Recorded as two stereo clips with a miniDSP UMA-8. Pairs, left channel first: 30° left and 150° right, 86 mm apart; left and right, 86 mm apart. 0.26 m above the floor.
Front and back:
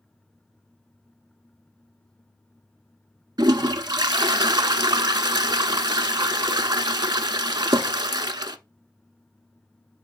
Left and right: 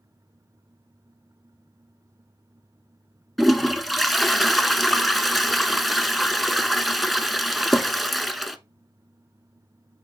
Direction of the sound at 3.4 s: Straight behind.